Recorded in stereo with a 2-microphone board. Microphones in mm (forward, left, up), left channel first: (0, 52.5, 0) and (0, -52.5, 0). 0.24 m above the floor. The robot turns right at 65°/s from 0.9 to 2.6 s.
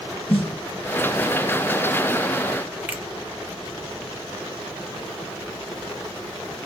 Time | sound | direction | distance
0.3 | a snare drum | 60° left (ahead or behind) | 1.2 m
2.9 | a finger snap | 15° right (ahead or behind) | 0.7 m